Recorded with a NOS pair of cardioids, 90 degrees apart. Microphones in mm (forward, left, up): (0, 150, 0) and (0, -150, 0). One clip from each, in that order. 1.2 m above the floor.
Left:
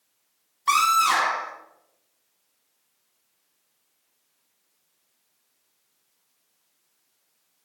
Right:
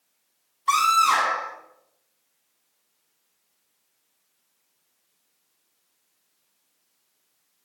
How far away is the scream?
About 3 m.